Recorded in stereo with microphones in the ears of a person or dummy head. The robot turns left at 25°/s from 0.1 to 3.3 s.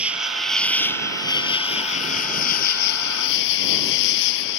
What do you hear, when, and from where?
0.0 s an insect: 170° right; by 4.6 s 110° left